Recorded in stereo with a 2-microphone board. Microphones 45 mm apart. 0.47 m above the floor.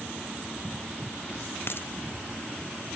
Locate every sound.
1.7 s a dropped coin: 55° left (ahead or behind)